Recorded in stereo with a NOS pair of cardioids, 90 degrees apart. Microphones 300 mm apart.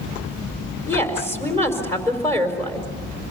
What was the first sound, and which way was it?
A woman speaking, 5° left.